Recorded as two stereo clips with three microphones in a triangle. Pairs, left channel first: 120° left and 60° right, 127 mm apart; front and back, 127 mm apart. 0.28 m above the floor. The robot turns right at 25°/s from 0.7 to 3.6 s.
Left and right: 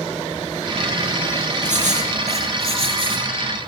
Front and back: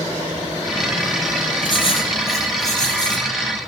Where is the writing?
50° right, 3 m; by 3.3 s 10° right, 3 m.